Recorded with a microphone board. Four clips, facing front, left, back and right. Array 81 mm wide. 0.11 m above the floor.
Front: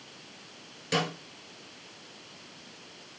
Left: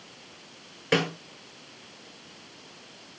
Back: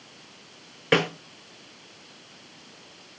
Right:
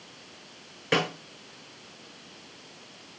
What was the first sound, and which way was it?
A snare drum, straight behind.